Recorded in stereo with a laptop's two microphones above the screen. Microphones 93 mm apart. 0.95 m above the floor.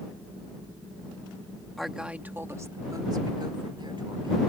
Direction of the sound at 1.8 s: Centre (ahead or behind).